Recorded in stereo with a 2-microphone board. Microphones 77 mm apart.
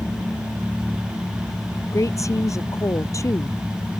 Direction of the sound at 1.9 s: 45° left (ahead or behind).